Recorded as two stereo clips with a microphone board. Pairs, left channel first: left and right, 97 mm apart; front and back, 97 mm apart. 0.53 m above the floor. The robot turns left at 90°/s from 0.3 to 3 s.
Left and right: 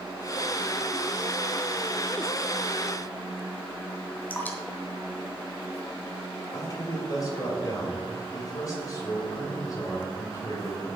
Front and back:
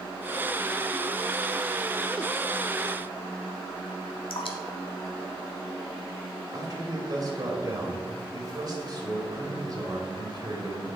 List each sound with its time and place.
4.3 s dripping: 20° left, 1.2 m
6.5 s a man speaking: 140° left, 2.5 m